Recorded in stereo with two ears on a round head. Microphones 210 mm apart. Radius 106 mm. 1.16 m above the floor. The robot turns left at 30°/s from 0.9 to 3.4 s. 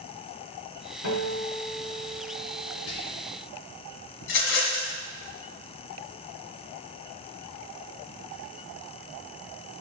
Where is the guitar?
75° left, 1.9 m; by 2.8 s 20° left, 1.9 m.